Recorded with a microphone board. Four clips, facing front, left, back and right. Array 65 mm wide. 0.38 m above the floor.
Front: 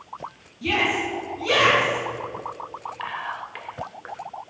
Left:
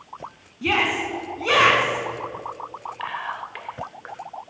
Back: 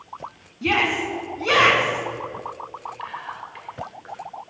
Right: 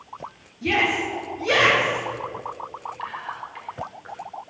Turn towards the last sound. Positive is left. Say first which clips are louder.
# left 5 dB, front 5 dB
turn(degrees=55)